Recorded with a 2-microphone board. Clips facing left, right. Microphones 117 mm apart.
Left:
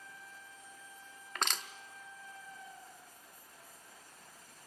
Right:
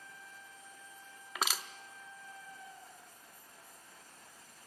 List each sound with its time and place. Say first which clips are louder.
1.4 s crushing: right 1 dB; 5° right (ahead or behind), 0.7 m